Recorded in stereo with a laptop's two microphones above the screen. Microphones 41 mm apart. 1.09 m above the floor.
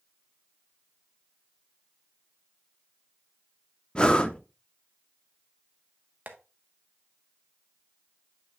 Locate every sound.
4.0 s breathing: 25° left (ahead or behind), 0.8 m
6.3 s tapping: 45° right (ahead or behind), 1.0 m